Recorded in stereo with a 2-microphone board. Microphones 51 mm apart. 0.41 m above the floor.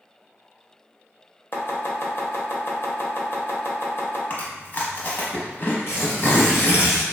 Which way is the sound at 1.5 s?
50° left (ahead or behind).